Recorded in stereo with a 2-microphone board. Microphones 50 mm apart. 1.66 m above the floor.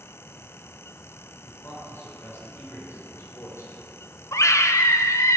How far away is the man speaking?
About 5.5 m.